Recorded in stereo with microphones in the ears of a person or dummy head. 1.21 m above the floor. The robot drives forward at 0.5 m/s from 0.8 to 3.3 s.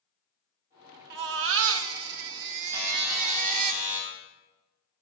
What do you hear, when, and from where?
1.1 s a baby crying: 55° right (ahead or behind), 1.0 m; by 3.7 s 50° right (ahead or behind), 1.0 m
2.7 s a buzzer: 15° right (ahead or behind), 6 m